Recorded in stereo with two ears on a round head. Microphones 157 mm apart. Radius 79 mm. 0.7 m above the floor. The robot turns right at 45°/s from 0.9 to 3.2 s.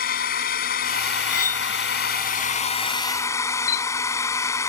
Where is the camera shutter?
55° left (ahead or behind).